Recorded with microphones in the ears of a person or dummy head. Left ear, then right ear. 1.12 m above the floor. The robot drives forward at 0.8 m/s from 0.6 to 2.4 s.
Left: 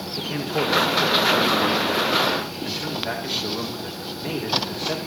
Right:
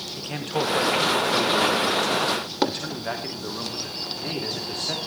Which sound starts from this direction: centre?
A man speaking, at 0.2 s.